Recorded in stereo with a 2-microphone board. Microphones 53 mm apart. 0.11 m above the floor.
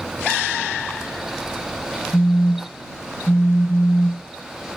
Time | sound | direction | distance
2.1 | a phone buzzing | 60° left (ahead or behind) | ?